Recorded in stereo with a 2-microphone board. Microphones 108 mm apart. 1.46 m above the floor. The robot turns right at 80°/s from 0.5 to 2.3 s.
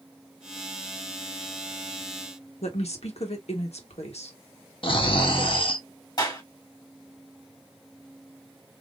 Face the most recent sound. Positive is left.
turn(degrees=40)  # may be behind; listen again after turning